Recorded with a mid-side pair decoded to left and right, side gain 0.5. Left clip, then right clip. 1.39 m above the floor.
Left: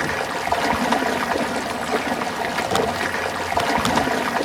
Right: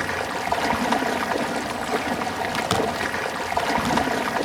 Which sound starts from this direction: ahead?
Running water, at 0.0 s.